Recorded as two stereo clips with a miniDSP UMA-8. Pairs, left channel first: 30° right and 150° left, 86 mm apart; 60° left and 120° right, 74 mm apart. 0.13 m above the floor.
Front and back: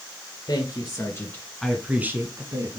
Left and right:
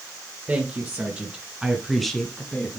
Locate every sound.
0.5 s a woman speaking: 60° right, 2 m; by 2.8 s 130° left, 1.9 m